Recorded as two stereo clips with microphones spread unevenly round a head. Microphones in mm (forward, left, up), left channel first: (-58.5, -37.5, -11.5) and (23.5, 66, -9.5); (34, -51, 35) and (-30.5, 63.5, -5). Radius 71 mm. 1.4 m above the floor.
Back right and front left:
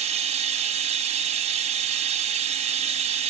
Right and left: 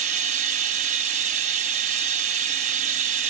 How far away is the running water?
About 1.8 m.